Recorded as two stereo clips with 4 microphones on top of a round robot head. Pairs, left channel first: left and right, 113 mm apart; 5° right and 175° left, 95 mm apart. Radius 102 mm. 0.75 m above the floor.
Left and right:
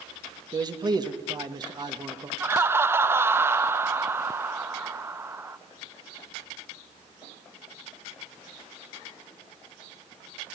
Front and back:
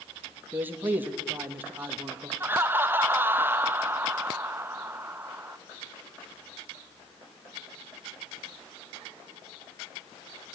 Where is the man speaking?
125° right, 1.5 m.